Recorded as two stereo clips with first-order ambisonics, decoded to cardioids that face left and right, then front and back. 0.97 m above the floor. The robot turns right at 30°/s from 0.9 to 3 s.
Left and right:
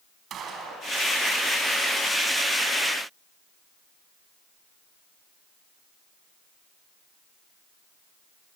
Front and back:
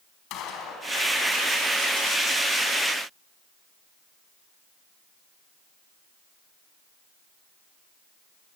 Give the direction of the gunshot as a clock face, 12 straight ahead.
1 o'clock.